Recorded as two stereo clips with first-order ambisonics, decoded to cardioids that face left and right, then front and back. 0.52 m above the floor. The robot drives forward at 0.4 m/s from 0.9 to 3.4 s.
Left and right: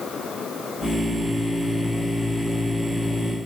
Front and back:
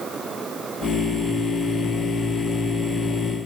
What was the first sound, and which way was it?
Only background noise.